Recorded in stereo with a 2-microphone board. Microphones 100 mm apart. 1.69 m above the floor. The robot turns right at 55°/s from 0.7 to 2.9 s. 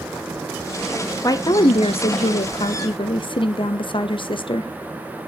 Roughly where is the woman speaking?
Ahead left.